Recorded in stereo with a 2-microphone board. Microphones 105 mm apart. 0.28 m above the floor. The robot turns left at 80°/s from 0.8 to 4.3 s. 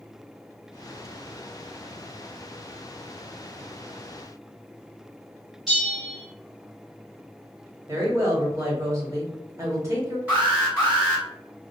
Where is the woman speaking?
30° right (ahead or behind), 1.0 m.